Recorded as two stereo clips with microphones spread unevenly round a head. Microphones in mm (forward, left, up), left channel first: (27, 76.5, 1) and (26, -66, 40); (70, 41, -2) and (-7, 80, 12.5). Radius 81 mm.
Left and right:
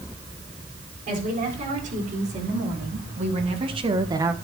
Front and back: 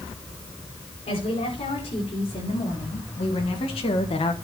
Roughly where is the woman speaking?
Ahead right.